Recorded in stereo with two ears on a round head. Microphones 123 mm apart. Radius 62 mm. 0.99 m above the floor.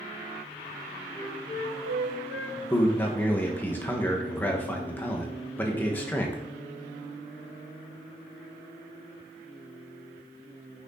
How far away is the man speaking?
About 0.8 m.